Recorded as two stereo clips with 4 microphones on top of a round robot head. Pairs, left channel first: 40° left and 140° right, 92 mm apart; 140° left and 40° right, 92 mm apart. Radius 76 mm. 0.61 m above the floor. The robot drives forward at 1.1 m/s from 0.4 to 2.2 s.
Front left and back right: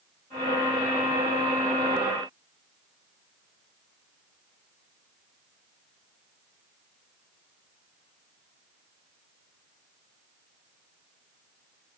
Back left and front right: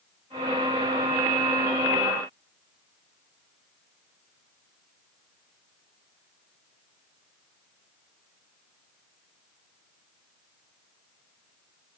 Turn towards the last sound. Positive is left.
No sound to turn to.